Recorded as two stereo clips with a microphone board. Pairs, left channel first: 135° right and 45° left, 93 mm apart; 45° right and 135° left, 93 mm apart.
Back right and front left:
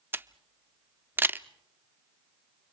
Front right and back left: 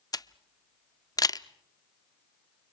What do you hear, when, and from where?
0.1 s a camera shutter: 15° right, 0.5 m